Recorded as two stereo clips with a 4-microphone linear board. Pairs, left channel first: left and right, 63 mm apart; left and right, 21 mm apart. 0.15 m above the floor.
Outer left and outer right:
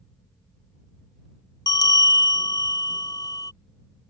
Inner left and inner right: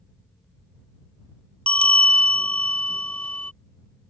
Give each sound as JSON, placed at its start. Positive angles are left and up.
{"t": 1.7, "sound": "a bell", "side_deg": 80}